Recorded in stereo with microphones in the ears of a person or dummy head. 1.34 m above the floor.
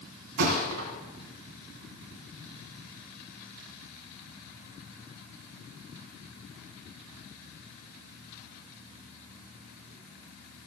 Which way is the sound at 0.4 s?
60° right (ahead or behind).